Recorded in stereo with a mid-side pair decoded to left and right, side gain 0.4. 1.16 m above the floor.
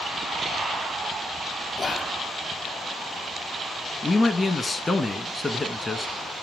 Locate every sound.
1.8 s whispering: 40° left, 0.6 m
4.0 s a man speaking: 25° left, 1.2 m